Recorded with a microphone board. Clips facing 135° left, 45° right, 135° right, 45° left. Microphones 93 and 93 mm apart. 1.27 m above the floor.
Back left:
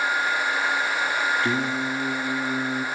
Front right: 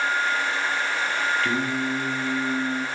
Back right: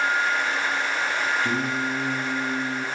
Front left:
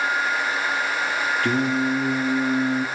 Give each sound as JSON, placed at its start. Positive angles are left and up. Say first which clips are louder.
{"t": 1.4, "sound": "singing", "louder": "even, front left 4 dB", "azimuth_deg": 70, "distance_m": 2.0}